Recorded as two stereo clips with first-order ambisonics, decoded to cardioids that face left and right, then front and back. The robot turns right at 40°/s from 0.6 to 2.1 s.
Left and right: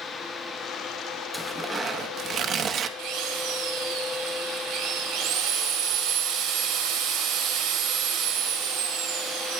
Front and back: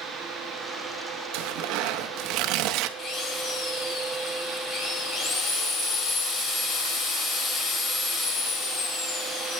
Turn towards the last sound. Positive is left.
turn(degrees=-60)